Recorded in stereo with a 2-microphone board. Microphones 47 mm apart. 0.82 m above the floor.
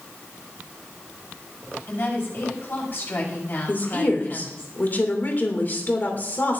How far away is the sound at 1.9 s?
About 5.5 m.